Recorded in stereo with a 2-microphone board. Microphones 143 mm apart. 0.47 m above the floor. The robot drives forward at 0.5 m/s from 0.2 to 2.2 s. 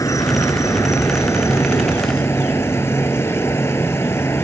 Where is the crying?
No crying in this recording.